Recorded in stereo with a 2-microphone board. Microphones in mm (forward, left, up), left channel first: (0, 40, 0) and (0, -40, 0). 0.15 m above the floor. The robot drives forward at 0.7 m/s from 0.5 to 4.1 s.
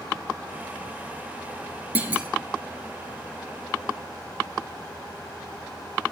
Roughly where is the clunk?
Right.